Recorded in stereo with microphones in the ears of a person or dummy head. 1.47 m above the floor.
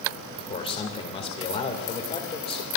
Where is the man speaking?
35° left (ahead or behind), 2 m.